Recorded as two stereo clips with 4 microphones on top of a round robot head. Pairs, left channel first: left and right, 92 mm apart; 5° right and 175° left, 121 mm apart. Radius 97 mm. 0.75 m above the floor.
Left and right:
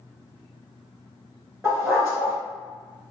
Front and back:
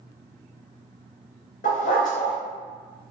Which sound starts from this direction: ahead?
A dog barking, at 1.6 s.